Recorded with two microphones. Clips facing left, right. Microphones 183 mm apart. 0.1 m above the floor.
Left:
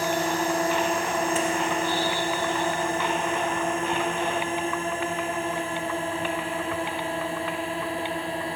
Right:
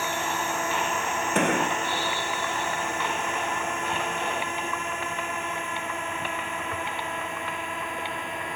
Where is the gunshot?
70° right (ahead or behind).